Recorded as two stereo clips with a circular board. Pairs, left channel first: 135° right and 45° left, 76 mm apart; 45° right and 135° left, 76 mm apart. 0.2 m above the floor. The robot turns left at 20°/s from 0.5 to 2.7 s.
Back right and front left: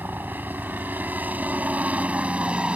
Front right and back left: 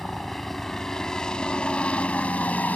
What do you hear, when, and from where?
0.0 s a helicopter: 35° left; by 2.8 s 10° right